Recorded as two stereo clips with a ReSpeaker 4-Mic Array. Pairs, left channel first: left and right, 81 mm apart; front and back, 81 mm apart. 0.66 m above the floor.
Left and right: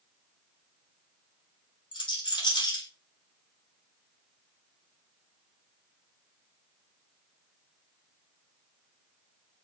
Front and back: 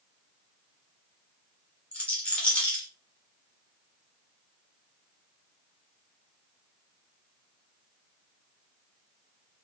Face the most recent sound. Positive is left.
turn(degrees=75)